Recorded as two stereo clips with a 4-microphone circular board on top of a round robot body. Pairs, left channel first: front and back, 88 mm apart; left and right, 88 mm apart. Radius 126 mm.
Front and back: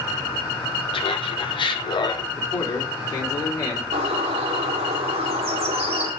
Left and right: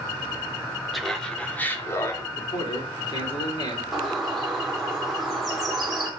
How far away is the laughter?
About 1.7 m.